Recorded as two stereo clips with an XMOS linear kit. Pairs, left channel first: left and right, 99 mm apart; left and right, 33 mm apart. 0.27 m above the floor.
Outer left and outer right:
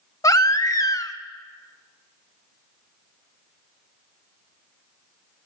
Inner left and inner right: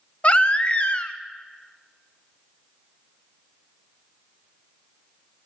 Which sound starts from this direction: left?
A baby crying, at 0.2 s.